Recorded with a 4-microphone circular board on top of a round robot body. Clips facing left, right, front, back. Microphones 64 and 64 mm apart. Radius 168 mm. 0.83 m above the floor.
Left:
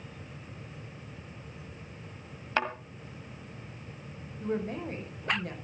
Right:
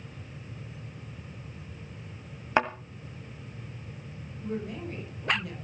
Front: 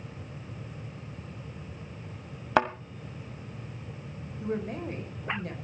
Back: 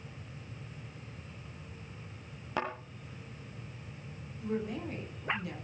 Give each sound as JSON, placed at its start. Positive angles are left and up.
{"t": 2.6, "sound": "a thud", "azimuth_deg": -20, "distance_m": 1.7}
{"t": 4.4, "sound": "a woman speaking", "azimuth_deg": 45, "distance_m": 5.0}